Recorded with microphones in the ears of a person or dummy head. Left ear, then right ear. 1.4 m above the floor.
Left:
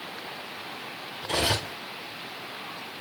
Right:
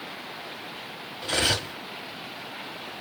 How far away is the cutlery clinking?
About 2.5 m.